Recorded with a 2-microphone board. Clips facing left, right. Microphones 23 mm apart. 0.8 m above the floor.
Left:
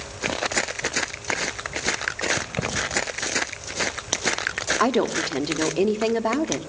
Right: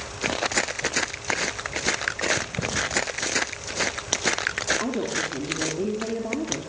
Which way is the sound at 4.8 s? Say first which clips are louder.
Left 5 dB; 70° left (ahead or behind).